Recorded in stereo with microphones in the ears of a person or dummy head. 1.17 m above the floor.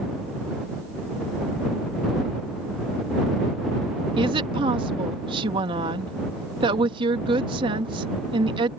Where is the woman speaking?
20° right (ahead or behind).